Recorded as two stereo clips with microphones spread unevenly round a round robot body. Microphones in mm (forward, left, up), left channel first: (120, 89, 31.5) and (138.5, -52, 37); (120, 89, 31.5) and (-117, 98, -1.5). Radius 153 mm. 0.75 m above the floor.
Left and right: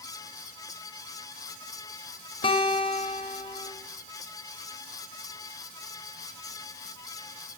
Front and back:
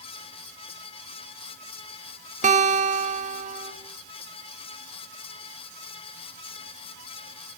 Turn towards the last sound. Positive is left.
turn(degrees=140)